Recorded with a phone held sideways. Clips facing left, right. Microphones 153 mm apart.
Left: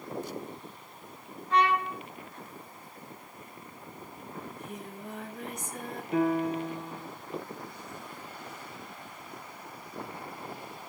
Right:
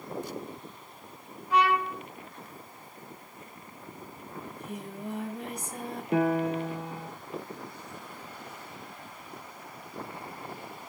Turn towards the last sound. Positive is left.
turn(degrees=-65)  # may be behind; listen again after turning